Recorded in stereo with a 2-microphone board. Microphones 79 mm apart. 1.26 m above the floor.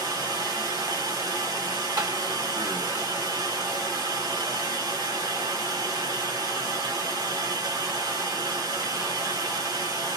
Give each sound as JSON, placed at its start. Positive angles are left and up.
{"t": 0.0, "sound": "running water", "side_deg": -55, "distance_m": 1.4}
{"t": 2.0, "sound": "tapping", "side_deg": -50, "distance_m": 1.6}